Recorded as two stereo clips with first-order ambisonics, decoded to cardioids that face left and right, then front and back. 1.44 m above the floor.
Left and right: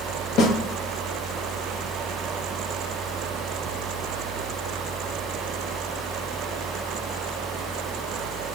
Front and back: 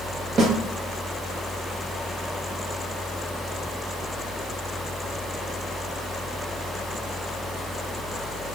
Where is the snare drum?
125° left, 0.8 m.